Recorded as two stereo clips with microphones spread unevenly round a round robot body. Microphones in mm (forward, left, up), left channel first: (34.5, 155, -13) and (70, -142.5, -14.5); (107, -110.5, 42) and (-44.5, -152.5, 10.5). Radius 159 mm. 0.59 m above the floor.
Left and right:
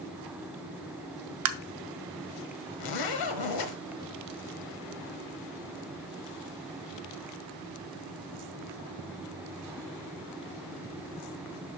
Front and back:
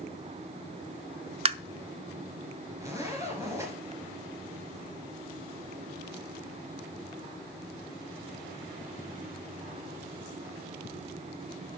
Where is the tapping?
120° right, 0.7 m.